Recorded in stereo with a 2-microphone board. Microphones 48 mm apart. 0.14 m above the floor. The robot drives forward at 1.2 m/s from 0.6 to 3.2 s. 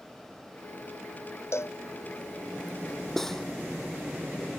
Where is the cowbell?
70° left (ahead or behind); by 1.8 s 65° left (ahead or behind).